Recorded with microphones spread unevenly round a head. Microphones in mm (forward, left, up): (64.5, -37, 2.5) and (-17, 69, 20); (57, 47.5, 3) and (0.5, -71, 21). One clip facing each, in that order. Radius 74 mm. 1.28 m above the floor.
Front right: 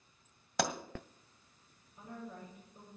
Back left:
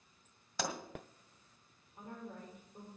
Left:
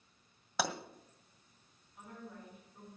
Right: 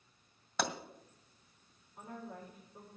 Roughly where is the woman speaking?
Behind.